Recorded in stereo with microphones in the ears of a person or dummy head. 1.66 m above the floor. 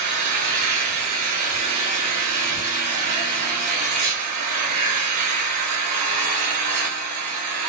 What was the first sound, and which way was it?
An engine running, 40° right (ahead or behind).